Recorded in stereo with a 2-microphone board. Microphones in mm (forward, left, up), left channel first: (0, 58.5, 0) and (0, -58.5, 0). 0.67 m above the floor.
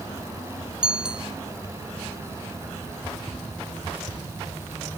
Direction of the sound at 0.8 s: 10° right (ahead or behind).